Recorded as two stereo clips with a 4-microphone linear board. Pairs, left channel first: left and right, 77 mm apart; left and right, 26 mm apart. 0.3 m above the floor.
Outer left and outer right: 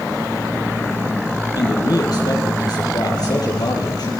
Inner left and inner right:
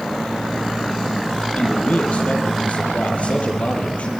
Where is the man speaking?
65° left (ahead or behind), 8 m.